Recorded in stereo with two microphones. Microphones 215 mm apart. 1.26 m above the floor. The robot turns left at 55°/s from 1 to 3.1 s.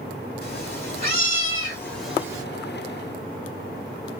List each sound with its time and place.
0.4 s a cat meowing: 55° left, 1.6 m; by 2.4 s 20° right, 1.6 m